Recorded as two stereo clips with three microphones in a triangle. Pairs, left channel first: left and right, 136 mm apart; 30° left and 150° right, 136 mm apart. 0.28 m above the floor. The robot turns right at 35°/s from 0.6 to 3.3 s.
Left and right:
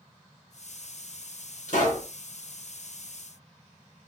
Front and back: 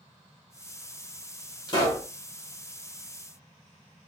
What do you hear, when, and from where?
1.7 s a pop: 80° left, 1.7 m; by 2.1 s 95° left, 1.7 m